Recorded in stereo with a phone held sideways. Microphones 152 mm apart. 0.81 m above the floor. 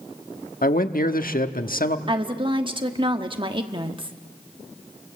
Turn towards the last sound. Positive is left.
turn(degrees=-35)  # may be behind; listen again after turning